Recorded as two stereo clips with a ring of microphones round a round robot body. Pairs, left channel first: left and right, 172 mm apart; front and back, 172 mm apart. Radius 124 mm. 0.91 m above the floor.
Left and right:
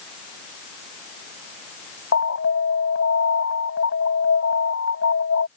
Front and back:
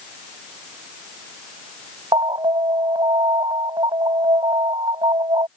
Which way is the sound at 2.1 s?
115° left.